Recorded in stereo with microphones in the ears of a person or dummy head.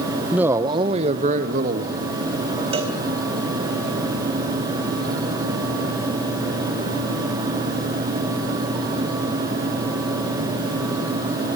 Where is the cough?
No cough in this recording.